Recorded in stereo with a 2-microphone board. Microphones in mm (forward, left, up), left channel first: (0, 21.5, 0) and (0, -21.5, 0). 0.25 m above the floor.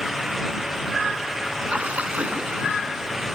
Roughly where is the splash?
Right.